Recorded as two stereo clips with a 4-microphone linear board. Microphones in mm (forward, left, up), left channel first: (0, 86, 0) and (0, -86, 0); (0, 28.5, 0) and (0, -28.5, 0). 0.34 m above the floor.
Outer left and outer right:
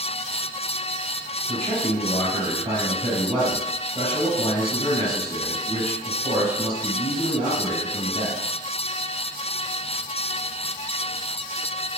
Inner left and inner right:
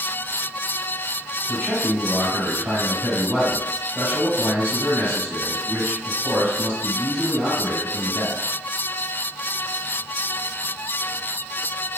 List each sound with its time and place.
1.5 s a man speaking: 40° right (ahead or behind), 1.6 m